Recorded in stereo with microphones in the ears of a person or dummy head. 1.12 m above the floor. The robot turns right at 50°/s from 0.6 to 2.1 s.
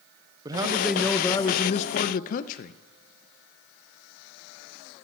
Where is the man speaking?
20° right, 0.5 m; by 2.8 s 55° left, 0.5 m.